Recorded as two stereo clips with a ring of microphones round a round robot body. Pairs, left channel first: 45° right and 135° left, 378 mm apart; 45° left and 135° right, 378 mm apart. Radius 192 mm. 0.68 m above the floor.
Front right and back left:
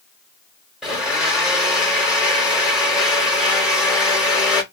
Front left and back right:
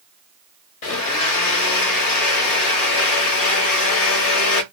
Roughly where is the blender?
Ahead left.